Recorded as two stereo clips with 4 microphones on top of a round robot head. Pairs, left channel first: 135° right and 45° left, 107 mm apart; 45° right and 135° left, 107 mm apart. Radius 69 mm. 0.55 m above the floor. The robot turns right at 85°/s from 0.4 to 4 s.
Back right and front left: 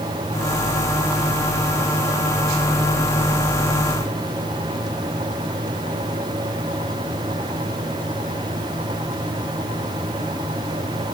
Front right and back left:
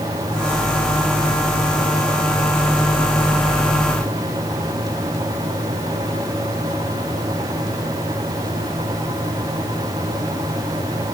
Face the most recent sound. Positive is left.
No sound to turn to.